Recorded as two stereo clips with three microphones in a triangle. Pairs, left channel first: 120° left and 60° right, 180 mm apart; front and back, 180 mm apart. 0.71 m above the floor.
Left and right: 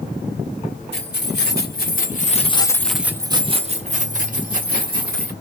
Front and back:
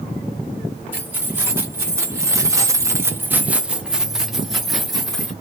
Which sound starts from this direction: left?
Keys jangling, at 0.9 s.